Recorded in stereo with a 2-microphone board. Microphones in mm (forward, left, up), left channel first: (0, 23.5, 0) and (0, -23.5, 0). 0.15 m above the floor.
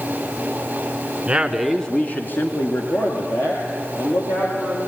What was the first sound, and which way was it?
A man speaking, 25° right (ahead or behind).